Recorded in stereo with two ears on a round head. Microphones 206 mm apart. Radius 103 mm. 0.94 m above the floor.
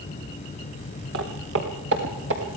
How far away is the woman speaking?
No woman speaking in this recording.